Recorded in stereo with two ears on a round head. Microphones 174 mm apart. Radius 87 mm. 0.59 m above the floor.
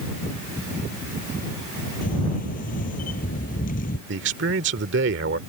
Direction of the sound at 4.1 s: 65° right (ahead or behind).